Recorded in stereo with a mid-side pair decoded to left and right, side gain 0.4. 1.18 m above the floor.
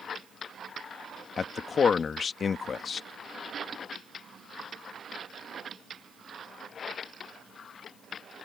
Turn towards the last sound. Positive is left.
turn(degrees=50)